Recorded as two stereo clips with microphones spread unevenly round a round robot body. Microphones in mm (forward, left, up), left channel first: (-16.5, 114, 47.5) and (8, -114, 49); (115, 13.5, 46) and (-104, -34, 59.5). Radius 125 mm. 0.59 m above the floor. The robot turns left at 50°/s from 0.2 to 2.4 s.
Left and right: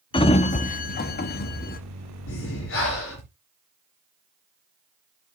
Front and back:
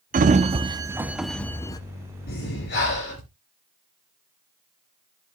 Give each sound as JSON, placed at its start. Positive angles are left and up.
{"t": 0.1, "sound": "a sliding door", "azimuth_deg": 150, "distance_m": 0.7}
{"t": 2.3, "sound": "breathing", "azimuth_deg": 65, "distance_m": 3.0}